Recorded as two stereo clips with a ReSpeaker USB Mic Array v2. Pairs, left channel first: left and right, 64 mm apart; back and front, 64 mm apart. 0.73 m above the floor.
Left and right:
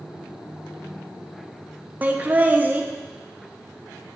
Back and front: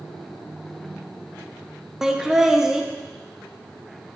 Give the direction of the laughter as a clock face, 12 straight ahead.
3 o'clock.